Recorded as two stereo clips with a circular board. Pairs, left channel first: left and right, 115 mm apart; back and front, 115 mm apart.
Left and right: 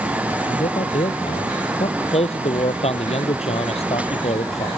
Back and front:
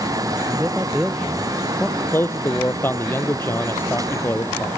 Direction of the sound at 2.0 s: 110° left.